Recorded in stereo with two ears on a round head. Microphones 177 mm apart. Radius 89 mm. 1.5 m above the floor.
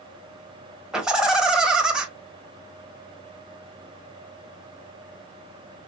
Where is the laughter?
5° right (ahead or behind), 1.9 m.